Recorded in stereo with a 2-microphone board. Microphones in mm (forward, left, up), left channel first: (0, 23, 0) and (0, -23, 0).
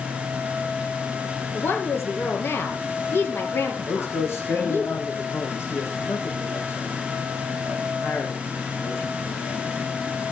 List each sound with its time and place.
1.5 s a woman speaking: 60° left (ahead or behind), 3.5 m
3.9 s a man speaking: 70° left (ahead or behind), 7.5 m